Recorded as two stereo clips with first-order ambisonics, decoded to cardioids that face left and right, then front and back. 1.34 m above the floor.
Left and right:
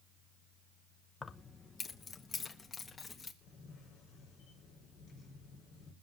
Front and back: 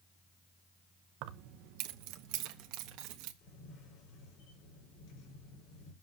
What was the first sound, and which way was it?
Keys jangling, 160° left.